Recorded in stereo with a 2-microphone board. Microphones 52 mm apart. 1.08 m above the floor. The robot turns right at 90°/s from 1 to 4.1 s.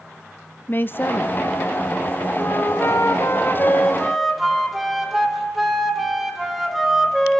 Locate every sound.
0.7 s a woman speaking: 50° left, 0.6 m; by 1.4 s 85° left, 0.6 m
2.4 s a flute: 25° left, 2 m; by 7.4 s straight behind, 2 m